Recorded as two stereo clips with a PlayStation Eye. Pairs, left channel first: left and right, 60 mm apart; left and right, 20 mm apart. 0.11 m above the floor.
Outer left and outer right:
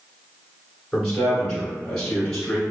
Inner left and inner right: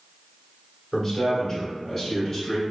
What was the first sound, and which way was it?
A man speaking, 5° left (ahead or behind).